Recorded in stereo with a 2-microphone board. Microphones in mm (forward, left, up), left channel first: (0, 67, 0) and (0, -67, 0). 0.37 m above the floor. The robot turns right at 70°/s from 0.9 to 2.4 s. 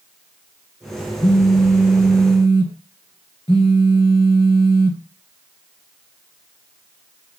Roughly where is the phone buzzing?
Ahead left.